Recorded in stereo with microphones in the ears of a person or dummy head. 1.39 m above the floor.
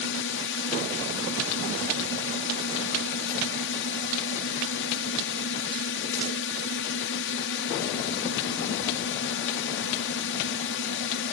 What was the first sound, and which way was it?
A drone, 55° left (ahead or behind).